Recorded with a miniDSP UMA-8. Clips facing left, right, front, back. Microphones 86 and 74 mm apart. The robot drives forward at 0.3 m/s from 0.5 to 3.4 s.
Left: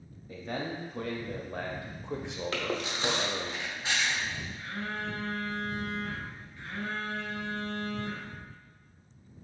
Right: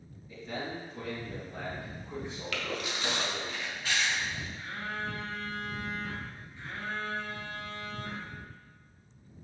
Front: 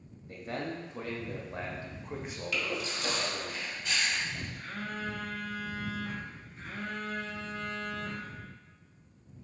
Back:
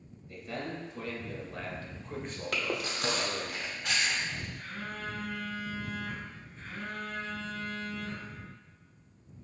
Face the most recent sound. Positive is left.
turn(degrees=-25)